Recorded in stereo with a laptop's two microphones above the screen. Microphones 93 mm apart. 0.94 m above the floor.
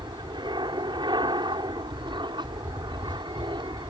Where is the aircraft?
55° right (ahead or behind).